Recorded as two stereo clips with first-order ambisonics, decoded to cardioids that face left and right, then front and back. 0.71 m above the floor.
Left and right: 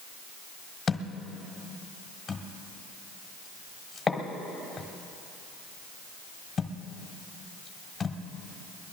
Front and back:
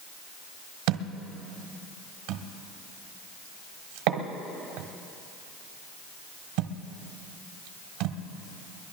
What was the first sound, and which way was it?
A thud, 165° left.